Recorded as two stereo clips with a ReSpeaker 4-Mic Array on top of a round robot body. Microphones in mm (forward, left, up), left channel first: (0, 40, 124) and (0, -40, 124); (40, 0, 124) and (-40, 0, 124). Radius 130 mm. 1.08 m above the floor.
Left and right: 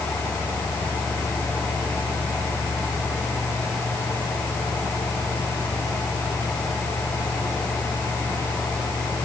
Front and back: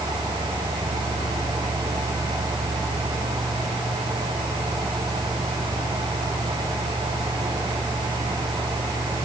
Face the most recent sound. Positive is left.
No sound to turn to.